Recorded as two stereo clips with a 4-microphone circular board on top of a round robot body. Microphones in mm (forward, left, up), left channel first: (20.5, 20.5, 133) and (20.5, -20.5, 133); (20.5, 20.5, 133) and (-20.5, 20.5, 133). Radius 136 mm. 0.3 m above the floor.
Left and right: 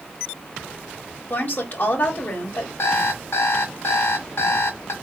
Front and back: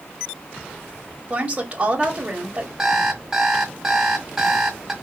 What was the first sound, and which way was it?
A woman speaking, 125° left.